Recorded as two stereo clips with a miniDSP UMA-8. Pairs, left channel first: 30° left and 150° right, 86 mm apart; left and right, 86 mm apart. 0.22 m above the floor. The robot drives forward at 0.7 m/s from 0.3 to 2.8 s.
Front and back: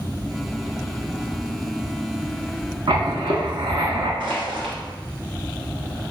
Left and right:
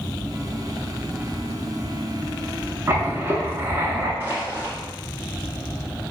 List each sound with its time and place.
2.9 s writing: 150° right, 0.6 m
4.2 s crushing: 155° right, 1.4 m